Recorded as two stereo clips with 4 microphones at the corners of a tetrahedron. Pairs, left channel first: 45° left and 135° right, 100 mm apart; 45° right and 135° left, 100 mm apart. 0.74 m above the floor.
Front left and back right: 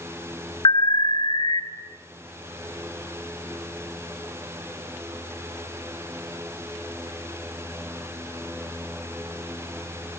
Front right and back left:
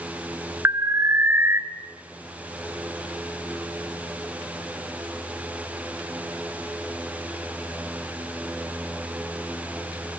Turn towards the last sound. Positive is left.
turn(degrees=75)